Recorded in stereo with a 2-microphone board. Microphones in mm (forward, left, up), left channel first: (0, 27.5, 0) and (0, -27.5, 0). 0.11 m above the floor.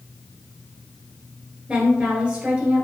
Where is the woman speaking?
20° right (ahead or behind), 1.4 m.